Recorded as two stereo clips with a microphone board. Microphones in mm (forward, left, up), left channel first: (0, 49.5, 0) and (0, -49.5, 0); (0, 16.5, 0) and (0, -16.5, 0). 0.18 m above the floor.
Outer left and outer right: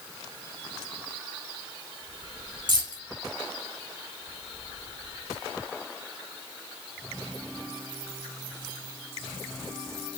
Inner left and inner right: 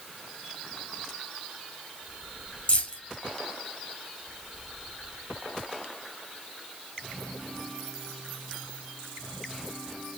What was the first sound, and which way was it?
Keys jangling, 50° left (ahead or behind).